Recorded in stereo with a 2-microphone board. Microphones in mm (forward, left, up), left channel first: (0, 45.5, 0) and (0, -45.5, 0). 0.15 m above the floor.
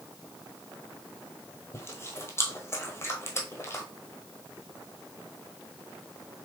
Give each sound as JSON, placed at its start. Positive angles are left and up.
{"t": 1.7, "sound": "chewing", "side_deg": 25, "distance_m": 1.1}